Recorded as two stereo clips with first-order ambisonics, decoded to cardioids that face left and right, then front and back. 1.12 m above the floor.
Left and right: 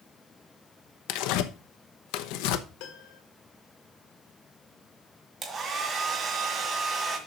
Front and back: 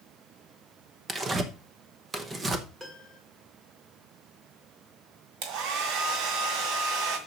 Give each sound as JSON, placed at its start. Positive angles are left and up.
{"t": 1.1, "sound": "tearing paper", "azimuth_deg": 110, "distance_m": 0.9}
{"t": 2.8, "sound": "a piano", "azimuth_deg": 100, "distance_m": 2.0}
{"t": 5.4, "sound": "a hair dryer", "azimuth_deg": -160, "distance_m": 1.9}